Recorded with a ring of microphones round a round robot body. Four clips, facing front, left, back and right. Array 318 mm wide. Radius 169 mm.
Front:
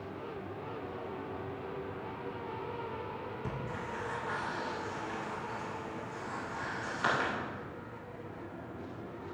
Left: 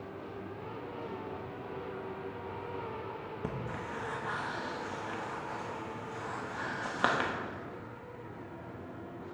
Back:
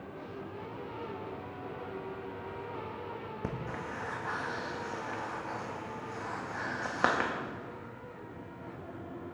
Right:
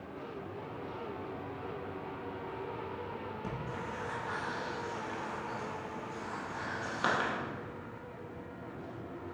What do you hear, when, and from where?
3.4 s breathing: 150° left, 1.0 m